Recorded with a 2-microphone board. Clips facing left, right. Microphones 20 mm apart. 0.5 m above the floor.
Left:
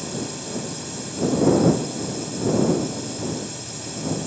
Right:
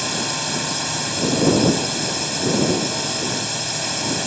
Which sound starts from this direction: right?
A drone, at 0.0 s.